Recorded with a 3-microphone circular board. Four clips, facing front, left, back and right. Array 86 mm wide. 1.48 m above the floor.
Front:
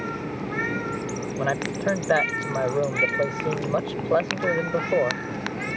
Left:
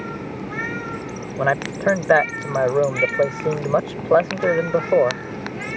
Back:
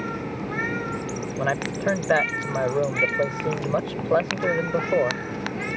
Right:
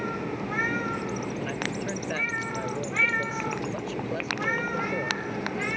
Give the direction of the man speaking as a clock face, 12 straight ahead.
9 o'clock.